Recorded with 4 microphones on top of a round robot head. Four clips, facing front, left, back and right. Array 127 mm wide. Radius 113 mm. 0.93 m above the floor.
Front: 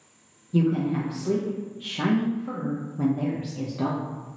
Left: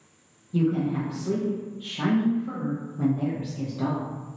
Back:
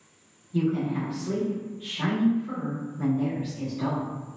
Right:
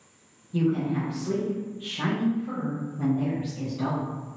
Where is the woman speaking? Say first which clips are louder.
Left 1 dB, front 3 dB; 10° left, 0.8 m.